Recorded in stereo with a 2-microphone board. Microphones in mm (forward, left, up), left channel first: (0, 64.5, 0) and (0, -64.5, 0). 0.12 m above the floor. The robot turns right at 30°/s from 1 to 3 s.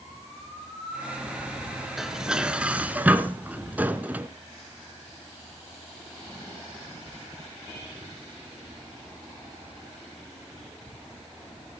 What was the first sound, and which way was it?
Dishes clattering, 5° right (ahead or behind).